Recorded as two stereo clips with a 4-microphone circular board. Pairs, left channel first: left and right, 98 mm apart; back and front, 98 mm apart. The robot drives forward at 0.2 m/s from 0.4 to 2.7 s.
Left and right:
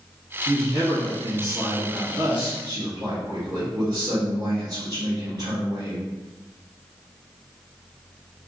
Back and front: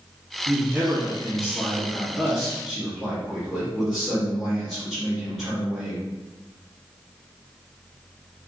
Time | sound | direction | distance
0.5 | a man speaking | 65° right | 1.3 m